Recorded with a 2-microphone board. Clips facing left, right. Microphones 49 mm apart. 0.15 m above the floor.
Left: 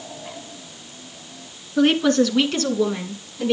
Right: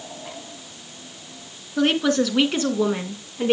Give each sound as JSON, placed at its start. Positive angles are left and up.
{"t": 1.8, "sound": "a woman speaking", "side_deg": 5, "distance_m": 2.0}